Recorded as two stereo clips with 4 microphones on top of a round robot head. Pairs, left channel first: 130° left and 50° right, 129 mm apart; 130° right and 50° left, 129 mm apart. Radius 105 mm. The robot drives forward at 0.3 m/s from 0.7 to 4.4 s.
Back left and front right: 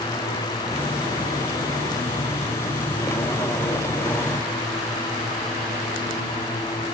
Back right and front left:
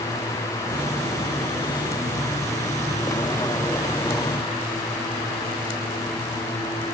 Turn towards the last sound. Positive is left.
No sound to turn to.